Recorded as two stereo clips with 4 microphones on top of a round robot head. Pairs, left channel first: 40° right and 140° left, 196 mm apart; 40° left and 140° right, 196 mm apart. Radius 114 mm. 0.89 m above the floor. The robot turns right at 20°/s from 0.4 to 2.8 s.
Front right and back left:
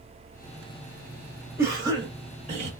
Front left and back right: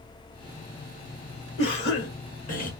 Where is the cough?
65° left, 1.5 m; by 2.7 s 90° left, 1.5 m.